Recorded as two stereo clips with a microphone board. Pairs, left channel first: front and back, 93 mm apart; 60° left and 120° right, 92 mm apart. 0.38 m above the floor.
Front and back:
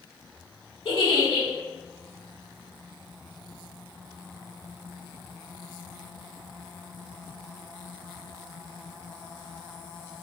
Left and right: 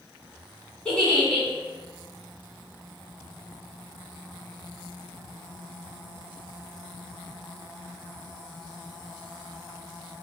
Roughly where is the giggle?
Ahead.